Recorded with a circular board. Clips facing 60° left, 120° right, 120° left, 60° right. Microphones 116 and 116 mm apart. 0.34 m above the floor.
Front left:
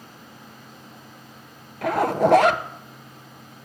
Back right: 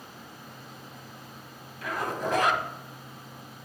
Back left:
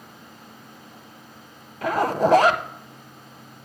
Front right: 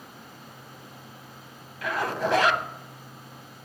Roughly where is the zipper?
Left.